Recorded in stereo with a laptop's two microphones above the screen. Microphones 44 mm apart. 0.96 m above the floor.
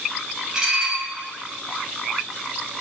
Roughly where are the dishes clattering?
Centre.